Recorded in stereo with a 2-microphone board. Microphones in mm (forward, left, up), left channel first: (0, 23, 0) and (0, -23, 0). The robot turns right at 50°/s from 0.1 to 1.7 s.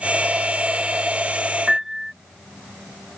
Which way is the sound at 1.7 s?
10° right (ahead or behind).